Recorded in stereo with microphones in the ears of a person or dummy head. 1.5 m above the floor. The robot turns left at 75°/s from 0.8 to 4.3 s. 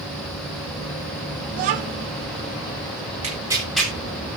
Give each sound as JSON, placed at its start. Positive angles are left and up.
{"t": 1.5, "sound": "a child speaking", "azimuth_deg": -100, "distance_m": 0.8}
{"t": 3.2, "sound": "tearing paper", "side_deg": -40, "distance_m": 4.0}